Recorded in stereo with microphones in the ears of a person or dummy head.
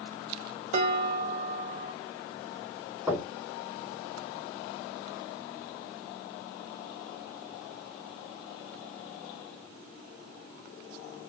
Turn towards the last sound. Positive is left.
turn(degrees=-15)  # may be behind; listen again after turning